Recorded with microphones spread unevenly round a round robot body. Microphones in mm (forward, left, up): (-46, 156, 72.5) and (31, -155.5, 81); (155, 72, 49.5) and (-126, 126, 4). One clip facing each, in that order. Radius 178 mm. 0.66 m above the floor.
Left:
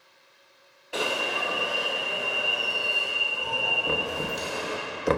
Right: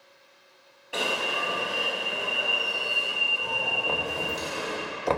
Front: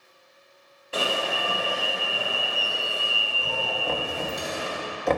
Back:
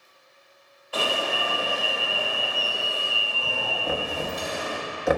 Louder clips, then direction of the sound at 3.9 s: Left 2 dB, back 3 dB; 130° left.